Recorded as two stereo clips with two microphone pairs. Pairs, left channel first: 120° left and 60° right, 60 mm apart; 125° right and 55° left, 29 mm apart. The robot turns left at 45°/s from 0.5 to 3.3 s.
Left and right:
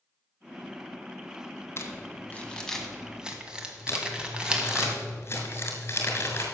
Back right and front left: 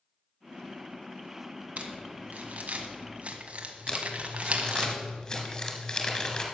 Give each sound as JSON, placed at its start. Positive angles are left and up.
{"t": 1.8, "sound": "crumpling", "azimuth_deg": 85, "distance_m": 1.3}
{"t": 3.9, "sound": "crumpling", "azimuth_deg": 170, "distance_m": 2.0}